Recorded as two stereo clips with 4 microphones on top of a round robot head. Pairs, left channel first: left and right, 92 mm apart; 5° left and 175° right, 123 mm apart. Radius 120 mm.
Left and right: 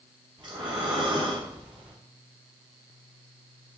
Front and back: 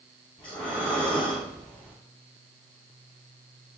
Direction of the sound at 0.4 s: 50° right.